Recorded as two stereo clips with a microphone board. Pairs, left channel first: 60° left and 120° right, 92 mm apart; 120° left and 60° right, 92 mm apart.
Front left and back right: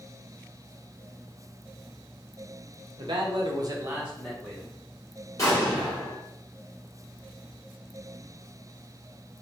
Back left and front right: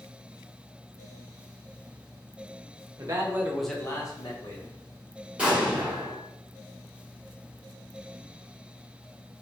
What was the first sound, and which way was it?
A man speaking, 105° right.